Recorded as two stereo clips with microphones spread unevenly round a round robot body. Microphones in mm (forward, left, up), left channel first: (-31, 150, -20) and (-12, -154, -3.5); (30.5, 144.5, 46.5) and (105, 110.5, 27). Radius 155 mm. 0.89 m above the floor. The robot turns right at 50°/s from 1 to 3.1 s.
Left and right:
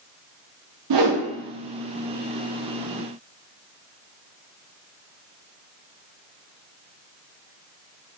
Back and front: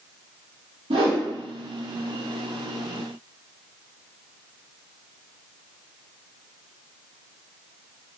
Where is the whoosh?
60° right, 0.5 m; by 1.2 s 45° right, 0.5 m.